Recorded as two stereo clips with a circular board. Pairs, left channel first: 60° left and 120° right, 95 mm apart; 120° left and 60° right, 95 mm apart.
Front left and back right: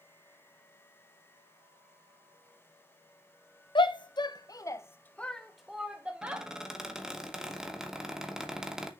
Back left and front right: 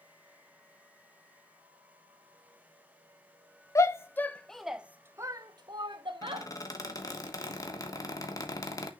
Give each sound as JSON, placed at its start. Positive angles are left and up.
{"t": 3.8, "sound": "a shout", "azimuth_deg": 70, "distance_m": 0.8}
{"t": 6.2, "sound": "a squeak", "azimuth_deg": 160, "distance_m": 1.2}